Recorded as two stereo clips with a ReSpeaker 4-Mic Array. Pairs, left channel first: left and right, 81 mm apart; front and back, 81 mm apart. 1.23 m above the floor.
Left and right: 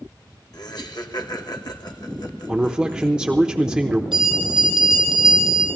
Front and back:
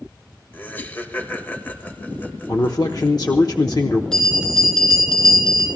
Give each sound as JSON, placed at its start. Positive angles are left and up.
{"t": 0.5, "sound": "laughter", "azimuth_deg": 65, "distance_m": 1.7}
{"t": 2.5, "sound": "a man speaking", "azimuth_deg": -10, "distance_m": 0.8}
{"t": 4.1, "sound": "a bell", "azimuth_deg": -80, "distance_m": 6.5}